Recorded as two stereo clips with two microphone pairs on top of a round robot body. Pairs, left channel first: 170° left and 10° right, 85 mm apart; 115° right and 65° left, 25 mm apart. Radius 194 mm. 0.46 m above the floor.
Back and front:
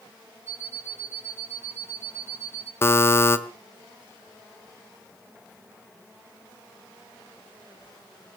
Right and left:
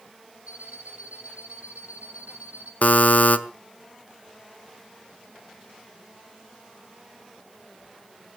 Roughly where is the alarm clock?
Ahead left.